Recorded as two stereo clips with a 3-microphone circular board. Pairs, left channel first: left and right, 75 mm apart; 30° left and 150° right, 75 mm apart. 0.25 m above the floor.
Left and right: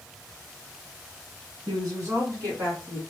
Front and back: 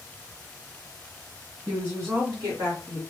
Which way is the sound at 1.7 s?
95° right.